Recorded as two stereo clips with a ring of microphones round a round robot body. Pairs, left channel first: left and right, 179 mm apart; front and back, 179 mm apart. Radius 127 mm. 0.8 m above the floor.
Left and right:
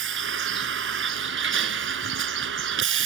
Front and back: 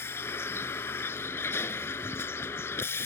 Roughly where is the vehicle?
Right.